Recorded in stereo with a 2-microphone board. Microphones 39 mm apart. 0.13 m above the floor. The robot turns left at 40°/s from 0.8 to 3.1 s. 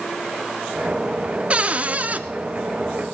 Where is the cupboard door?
35° right (ahead or behind), 0.6 m; by 2.2 s 40° right (ahead or behind), 0.6 m.